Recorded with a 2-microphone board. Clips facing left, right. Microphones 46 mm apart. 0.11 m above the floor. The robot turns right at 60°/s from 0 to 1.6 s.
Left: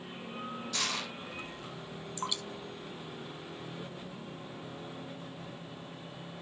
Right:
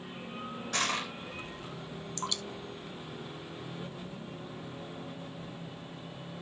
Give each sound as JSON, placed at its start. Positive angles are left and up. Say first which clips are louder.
{"t": 0.7, "sound": "crushing", "louder": "right 5 dB", "side_deg": -45, "distance_m": 4.0}
{"t": 2.2, "sound": "dripping", "louder": "even", "side_deg": 15, "distance_m": 1.0}